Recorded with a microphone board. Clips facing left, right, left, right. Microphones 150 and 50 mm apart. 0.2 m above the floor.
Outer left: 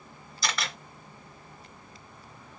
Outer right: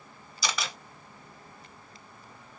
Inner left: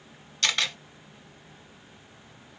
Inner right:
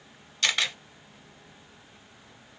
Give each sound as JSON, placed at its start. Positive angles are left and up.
{"t": 0.4, "sound": "a camera shutter", "side_deg": -5, "distance_m": 3.0}